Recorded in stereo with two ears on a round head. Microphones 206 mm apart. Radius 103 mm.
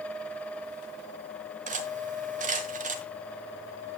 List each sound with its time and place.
1.7 s cutlery clinking: 35° right (ahead or behind), 1.1 m